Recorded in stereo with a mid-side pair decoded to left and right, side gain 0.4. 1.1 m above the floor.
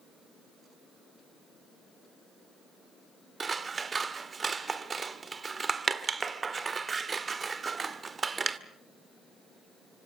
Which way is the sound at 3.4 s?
35° right.